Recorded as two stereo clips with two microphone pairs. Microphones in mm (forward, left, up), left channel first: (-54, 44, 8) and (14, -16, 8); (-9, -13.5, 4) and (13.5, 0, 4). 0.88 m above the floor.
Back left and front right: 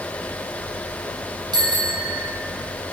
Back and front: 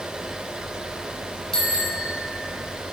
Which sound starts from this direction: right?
A bicycle bell, at 1.5 s.